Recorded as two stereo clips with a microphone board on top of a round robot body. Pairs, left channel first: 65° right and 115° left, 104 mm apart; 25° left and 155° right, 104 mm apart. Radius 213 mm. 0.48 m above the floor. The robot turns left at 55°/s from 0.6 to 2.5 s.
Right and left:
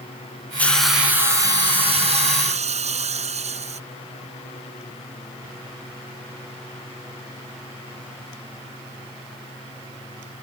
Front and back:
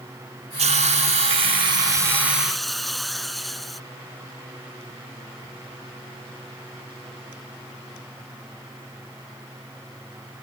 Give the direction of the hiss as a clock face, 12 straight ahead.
5 o'clock.